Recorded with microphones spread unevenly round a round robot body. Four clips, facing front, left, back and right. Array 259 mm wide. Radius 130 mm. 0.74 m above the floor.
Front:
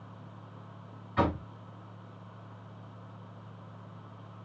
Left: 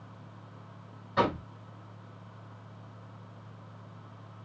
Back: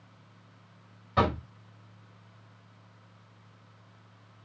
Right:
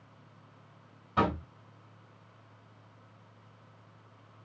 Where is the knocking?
175° right, 2.5 m.